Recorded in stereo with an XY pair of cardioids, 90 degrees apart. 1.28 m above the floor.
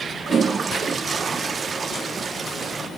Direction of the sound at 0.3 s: 45° right.